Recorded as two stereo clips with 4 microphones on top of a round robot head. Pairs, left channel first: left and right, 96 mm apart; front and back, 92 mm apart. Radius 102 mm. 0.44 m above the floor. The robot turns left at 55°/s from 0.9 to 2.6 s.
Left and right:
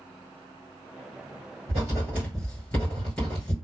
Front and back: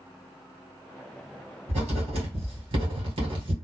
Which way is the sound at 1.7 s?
145° right.